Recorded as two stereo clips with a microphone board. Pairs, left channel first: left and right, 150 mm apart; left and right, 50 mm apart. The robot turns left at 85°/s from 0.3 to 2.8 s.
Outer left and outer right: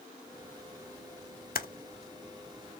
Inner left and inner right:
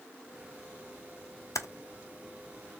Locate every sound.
1.6 s typing on a keyboard: 80° left, 0.5 m; by 1.7 s 75° left (ahead or behind), 0.5 m